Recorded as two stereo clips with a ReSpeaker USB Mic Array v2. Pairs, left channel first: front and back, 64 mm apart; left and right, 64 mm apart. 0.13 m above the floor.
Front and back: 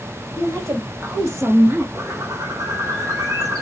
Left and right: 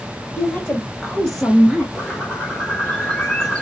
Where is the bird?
160° left, 1.5 m.